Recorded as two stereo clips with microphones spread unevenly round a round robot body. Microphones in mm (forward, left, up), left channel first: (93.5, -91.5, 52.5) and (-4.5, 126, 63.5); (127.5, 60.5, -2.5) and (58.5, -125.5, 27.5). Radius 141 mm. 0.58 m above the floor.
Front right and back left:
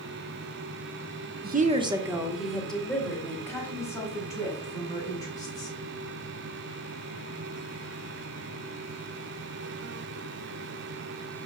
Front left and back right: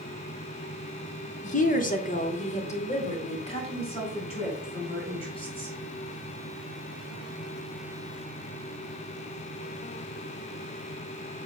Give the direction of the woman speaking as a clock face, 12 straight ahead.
9 o'clock.